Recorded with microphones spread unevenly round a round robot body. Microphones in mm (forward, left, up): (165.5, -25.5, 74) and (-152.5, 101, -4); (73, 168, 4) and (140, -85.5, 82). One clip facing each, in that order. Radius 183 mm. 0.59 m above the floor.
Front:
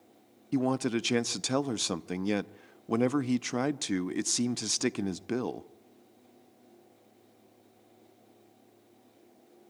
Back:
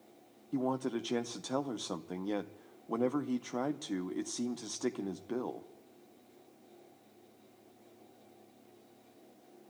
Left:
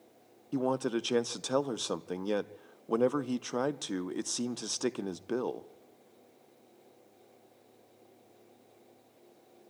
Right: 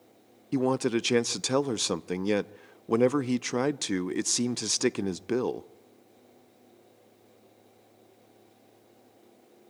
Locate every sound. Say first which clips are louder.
0.5 s a man speaking: front 6 dB, right 5 dB; 15° right, 0.7 m